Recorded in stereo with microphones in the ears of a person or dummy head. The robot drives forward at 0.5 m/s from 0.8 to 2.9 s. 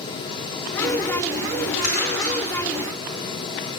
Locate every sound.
1.8 s crumpling: 50° left (ahead or behind), 1.8 m; by 2.4 s 45° left (ahead or behind), 2 m